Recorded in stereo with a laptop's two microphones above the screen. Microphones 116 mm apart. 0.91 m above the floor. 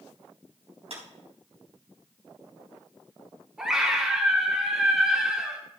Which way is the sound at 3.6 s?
5° right (ahead or behind).